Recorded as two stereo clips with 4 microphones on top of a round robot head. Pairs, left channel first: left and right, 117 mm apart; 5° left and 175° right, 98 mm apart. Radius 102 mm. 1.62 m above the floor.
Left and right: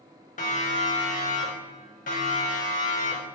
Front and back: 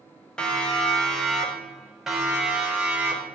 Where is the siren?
85° left, 5 m; by 3.2 s 105° left, 6.5 m.